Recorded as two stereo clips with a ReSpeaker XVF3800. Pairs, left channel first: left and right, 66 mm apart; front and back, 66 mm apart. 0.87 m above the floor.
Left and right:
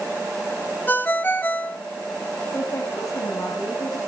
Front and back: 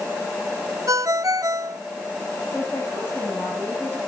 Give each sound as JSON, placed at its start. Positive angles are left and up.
{"t": 0.9, "sound": "a ringtone", "azimuth_deg": 150, "distance_m": 0.8}
{"t": 2.5, "sound": "a woman speaking", "azimuth_deg": 65, "distance_m": 5.5}